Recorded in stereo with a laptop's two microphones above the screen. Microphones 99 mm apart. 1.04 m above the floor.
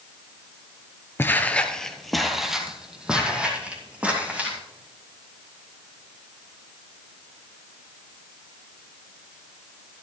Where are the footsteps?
25° left (ahead or behind), 1.1 m; by 4.6 s 15° right (ahead or behind), 4 m.